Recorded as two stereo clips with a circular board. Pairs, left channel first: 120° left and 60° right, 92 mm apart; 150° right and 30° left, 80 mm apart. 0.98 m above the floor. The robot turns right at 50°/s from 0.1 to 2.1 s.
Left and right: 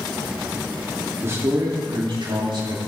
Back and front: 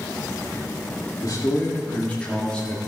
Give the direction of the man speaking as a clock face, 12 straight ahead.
4 o'clock.